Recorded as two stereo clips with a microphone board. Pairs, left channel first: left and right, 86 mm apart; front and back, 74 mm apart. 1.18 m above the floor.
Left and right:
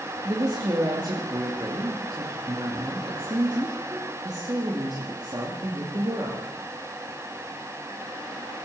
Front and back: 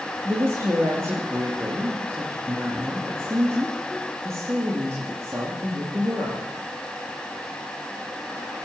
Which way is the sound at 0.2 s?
125° right.